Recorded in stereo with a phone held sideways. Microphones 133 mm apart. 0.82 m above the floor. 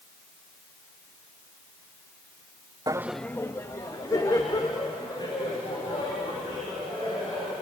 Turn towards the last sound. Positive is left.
turn(degrees=35)  # may be behind; listen again after turning